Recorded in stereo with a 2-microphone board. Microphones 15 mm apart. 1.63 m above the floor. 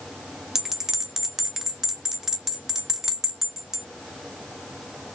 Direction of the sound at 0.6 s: 30° right (ahead or behind).